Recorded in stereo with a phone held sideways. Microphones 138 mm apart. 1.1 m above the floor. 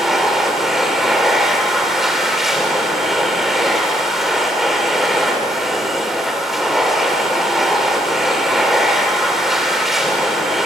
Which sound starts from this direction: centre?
A machine running, at 0.0 s.